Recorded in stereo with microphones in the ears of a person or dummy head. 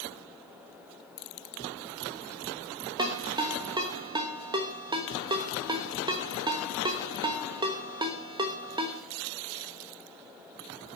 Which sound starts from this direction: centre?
A ringtone, at 3.0 s.